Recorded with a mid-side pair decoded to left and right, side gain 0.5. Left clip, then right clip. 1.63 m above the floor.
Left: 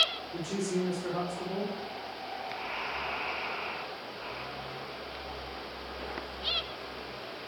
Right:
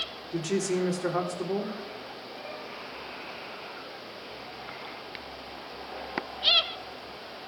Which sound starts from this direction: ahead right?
A woman speaking, at 0.3 s.